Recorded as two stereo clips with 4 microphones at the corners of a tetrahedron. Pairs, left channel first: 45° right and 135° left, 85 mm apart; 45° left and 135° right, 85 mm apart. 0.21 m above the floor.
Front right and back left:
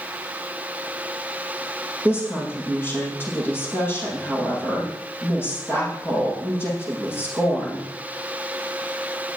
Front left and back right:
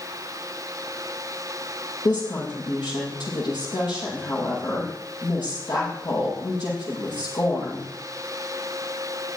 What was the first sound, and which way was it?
A woman speaking, 20° left.